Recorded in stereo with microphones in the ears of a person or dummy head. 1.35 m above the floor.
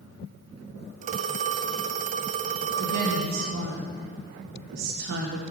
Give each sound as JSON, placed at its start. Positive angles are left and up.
{"t": 1.0, "sound": "a phone ringing", "side_deg": -35, "distance_m": 0.7}
{"t": 2.8, "sound": "a woman speaking", "side_deg": -55, "distance_m": 1.7}